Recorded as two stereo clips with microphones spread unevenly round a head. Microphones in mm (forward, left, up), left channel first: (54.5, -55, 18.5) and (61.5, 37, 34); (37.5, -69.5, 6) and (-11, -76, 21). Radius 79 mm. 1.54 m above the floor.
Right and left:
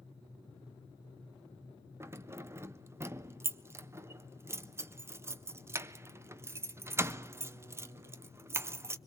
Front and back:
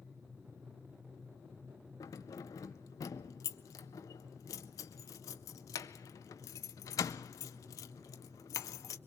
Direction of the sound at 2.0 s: 45° left.